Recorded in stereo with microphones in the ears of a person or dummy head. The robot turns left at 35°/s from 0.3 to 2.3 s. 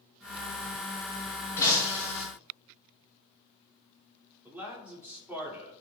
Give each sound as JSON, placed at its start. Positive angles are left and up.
{"t": 1.6, "sound": "breaking glass", "side_deg": 20, "distance_m": 3.0}
{"t": 4.5, "sound": "a man speaking", "side_deg": -5, "distance_m": 2.0}